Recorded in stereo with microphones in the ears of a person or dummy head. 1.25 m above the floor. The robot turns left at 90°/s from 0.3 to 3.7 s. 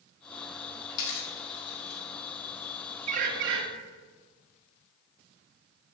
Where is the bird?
35° right, 0.8 m; by 3.6 s 85° right, 0.8 m.